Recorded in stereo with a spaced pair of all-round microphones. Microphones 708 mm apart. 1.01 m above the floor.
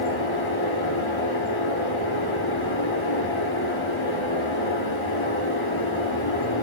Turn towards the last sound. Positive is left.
turn(degrees=40)  # may be behind; listen again after turning